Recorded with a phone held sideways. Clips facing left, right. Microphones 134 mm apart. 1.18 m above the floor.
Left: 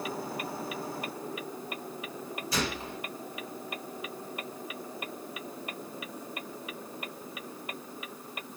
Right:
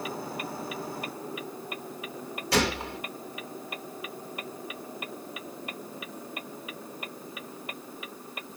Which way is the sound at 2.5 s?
75° right (ahead or behind).